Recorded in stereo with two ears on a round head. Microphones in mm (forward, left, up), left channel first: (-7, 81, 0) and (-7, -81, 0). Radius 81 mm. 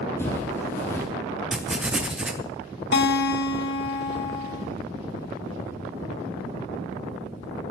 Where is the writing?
5° right (ahead or behind), 0.6 m.